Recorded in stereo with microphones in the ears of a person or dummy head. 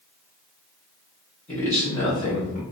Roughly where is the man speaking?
Centre.